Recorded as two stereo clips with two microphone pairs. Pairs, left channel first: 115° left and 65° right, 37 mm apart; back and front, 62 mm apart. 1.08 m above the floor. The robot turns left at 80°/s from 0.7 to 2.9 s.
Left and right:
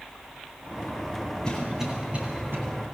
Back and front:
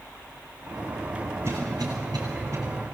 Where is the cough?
45° left, 10 m; by 2.6 s 45° right, 10 m.